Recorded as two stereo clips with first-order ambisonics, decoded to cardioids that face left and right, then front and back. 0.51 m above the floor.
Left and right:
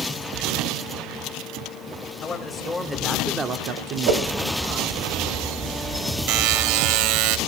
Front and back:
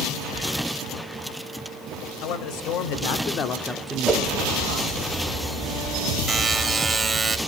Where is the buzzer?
105° right, 0.6 m.